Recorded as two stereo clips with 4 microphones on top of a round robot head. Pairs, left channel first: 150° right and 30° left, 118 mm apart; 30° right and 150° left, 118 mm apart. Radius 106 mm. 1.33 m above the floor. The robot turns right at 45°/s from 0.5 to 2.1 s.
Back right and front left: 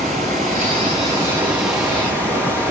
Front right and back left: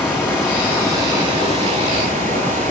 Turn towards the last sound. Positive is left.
turn(degrees=135)